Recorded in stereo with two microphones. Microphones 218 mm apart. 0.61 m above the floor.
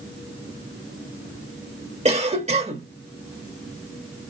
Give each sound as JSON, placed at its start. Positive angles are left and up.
{"t": 2.0, "sound": "a cough", "side_deg": -30, "distance_m": 1.0}